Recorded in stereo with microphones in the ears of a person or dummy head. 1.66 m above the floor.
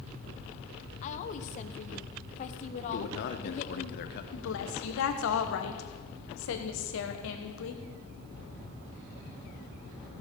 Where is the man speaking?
55° left (ahead or behind), 1.0 m.